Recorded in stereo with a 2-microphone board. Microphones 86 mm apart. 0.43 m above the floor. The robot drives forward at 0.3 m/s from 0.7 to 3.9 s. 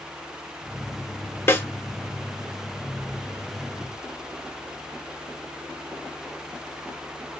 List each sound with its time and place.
1.5 s a snare drum: 25° left (ahead or behind), 1.1 m; by 1.7 s 30° left (ahead or behind), 1.1 m